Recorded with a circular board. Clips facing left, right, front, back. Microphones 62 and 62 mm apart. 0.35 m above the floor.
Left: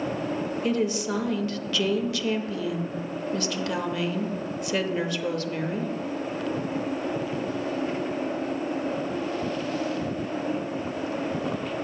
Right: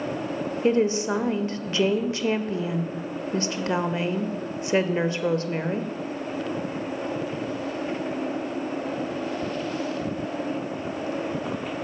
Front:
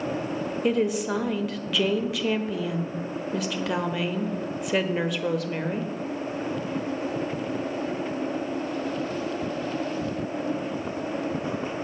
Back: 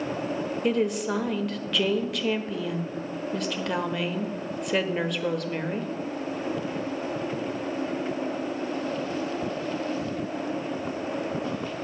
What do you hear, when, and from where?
0.6 s a woman speaking: 90° right, 0.9 m